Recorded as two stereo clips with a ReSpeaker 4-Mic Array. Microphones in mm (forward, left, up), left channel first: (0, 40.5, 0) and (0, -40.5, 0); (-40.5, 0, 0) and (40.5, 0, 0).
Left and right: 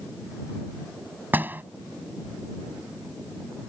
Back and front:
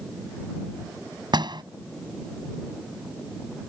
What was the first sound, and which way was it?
A door slam, 25° right.